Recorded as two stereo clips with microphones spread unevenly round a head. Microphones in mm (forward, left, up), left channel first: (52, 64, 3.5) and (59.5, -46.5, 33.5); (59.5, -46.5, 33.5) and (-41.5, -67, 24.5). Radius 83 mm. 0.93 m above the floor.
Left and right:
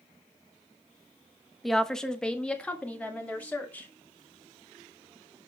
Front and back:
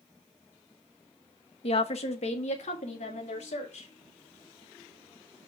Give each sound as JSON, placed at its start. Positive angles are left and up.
{"t": 1.6, "sound": "a woman speaking", "azimuth_deg": 15, "distance_m": 1.0}